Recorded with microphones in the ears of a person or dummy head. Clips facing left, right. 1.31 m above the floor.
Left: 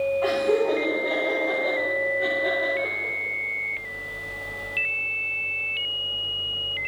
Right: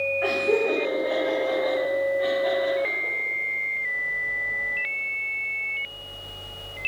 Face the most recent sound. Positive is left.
turn(degrees=15)  # may be behind; listen again after turning